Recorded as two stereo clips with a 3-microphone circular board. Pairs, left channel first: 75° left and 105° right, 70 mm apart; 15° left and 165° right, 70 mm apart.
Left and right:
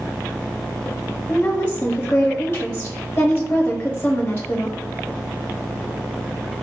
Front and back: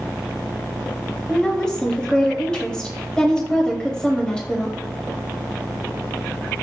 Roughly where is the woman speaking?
Left.